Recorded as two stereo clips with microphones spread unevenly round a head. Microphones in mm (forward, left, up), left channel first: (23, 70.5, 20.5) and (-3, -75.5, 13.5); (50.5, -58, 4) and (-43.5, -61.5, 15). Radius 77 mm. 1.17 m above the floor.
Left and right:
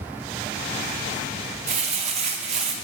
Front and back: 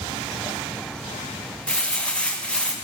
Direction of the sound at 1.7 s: 70° right.